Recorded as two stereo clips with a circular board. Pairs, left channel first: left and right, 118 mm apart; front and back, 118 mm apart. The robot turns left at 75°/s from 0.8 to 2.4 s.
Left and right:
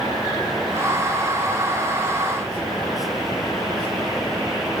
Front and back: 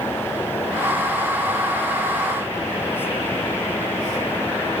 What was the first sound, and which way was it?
Only background noise.